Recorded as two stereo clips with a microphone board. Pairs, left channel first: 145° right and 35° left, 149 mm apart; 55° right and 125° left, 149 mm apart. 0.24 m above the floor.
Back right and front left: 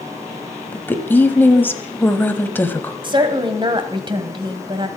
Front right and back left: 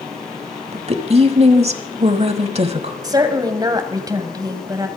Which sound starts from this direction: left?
A woman speaking, at 3.0 s.